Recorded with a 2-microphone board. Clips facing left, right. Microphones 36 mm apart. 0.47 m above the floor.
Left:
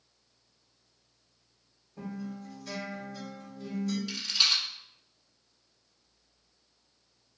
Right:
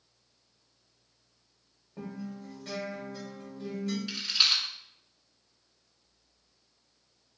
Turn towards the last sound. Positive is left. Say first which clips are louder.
# right 2 dB
turn(degrees=-20)  # may be behind; listen again after turning